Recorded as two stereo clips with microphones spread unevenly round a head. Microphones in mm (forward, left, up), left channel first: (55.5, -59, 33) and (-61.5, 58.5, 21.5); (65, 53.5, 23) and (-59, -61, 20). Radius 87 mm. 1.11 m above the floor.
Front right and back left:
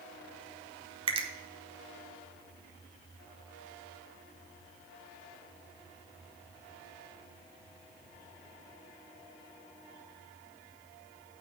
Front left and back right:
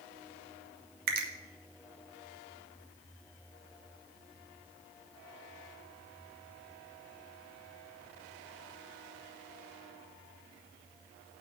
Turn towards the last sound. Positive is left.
turn(degrees=-170)